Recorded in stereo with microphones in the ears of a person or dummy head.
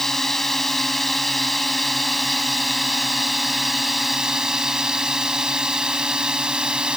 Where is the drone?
5° left (ahead or behind); by 7.0 s 5° right (ahead or behind).